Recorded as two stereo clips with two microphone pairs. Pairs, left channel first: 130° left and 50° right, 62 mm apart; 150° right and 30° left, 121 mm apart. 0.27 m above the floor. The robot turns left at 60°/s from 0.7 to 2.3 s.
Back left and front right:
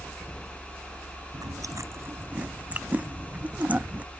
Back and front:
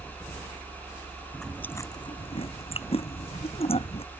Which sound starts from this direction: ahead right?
Chewing, at 1.3 s.